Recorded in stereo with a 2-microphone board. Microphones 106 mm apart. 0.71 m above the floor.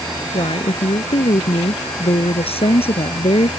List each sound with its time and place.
0.3 s a woman speaking: 60° left (ahead or behind)